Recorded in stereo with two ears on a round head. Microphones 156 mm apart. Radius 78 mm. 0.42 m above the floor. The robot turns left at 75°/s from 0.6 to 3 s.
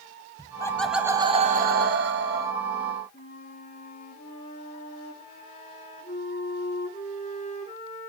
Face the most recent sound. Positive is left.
turn(degrees=45)  # may be behind; listen again after turning